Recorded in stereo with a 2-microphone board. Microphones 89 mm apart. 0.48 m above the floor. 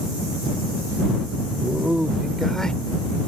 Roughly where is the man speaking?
Centre.